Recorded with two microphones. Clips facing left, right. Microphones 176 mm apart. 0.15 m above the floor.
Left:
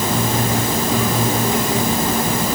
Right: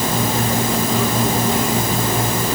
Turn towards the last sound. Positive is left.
No sound to turn to.